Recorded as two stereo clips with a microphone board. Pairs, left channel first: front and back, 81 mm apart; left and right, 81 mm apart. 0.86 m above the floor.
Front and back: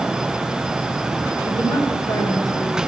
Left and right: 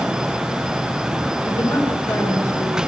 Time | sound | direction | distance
1.4 | a woman speaking | 35° left | 10 m